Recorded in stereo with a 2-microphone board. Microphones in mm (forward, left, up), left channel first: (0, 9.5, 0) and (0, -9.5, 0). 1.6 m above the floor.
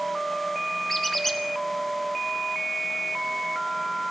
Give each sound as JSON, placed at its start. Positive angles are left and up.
{"t": 0.9, "sound": "a squeak", "side_deg": 20, "distance_m": 1.0}